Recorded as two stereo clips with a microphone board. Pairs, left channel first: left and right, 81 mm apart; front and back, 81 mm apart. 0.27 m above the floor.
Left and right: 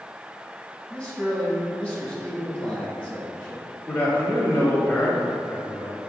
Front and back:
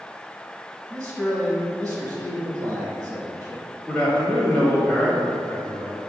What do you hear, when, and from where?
0.9 s a man speaking: 145° left, 1.3 m
3.9 s a man speaking: 55° left, 0.9 m